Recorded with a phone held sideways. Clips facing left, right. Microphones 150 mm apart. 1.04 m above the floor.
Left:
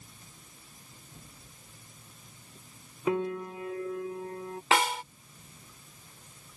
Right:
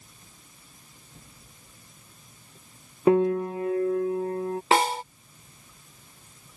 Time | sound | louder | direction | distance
3.1 | a piano | right 10 dB | 50° right (ahead or behind) | ?
4.7 | a snare drum | right 4 dB | 35° right (ahead or behind) | ?